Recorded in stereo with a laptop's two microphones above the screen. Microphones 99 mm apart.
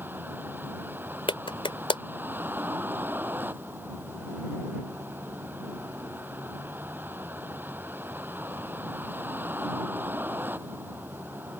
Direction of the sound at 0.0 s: 20° right (ahead or behind).